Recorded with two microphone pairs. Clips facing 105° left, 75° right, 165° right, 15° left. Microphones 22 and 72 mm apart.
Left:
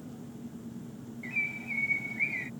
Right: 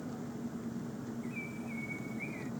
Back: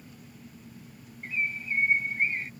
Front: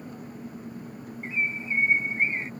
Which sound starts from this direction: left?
A bird, at 1.2 s.